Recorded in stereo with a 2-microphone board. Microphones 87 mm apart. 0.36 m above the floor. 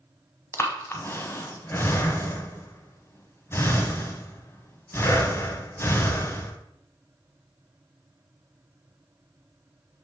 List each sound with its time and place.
0.5 s breathing: 25° left (ahead or behind), 0.9 m